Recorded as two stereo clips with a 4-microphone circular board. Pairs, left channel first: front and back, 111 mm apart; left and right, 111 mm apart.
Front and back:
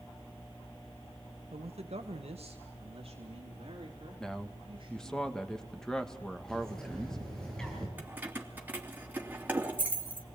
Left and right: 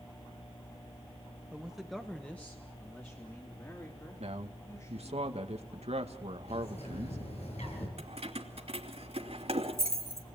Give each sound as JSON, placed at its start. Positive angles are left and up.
{"t": 1.5, "sound": "a man speaking", "azimuth_deg": -170, "distance_m": 1.3}
{"t": 4.2, "sound": "a man speaking", "azimuth_deg": -85, "distance_m": 2.0}
{"t": 6.5, "sound": "a bird", "azimuth_deg": 85, "distance_m": 8.5}
{"t": 8.0, "sound": "keys jangling", "azimuth_deg": -105, "distance_m": 3.0}